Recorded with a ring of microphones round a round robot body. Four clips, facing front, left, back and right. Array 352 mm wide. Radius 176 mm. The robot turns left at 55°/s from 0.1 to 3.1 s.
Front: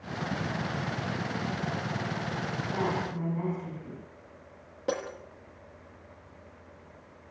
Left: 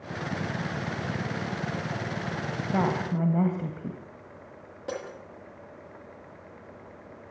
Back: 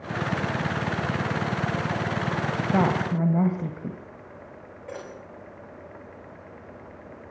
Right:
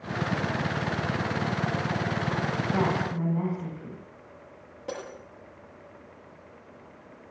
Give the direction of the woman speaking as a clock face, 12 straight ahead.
6 o'clock.